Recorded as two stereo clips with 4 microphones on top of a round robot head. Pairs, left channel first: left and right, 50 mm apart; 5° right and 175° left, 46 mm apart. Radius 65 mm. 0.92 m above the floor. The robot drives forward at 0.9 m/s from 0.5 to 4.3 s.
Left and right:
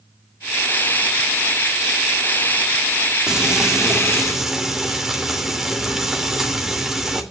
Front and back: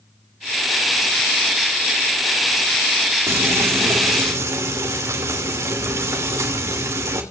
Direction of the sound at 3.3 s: 165° right.